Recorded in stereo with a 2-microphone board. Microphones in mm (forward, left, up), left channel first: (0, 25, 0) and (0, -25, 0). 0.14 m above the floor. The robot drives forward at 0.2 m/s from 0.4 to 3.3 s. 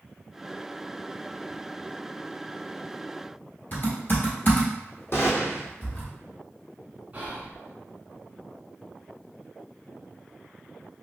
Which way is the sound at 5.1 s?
55° left (ahead or behind).